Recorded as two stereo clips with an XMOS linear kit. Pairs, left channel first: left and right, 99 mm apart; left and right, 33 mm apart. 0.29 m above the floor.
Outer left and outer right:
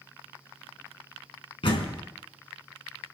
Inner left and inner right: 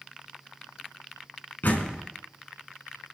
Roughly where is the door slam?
Left.